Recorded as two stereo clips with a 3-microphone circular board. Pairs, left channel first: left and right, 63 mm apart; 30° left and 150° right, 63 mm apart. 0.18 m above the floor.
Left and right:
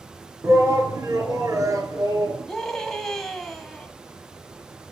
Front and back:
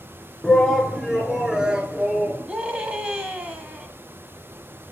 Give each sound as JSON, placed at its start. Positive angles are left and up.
{"t": 0.4, "sound": "a shout", "azimuth_deg": -60, "distance_m": 2.0}
{"t": 2.5, "sound": "a scream", "azimuth_deg": 170, "distance_m": 1.6}